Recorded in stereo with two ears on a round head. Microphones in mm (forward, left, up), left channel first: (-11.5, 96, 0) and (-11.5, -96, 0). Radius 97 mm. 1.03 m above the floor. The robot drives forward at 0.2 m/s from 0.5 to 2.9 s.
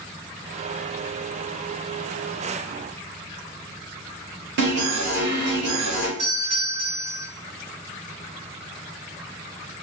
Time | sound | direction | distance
4.6 | an alarm | 55° right (ahead or behind) | 0.9 m
6.2 | a doorbell | 50° right (ahead or behind) | 1.7 m